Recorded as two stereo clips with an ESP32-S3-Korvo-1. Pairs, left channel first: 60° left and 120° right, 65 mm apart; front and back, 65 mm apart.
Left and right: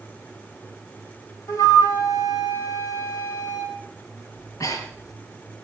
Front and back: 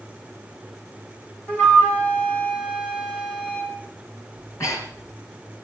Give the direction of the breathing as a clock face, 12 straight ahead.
11 o'clock.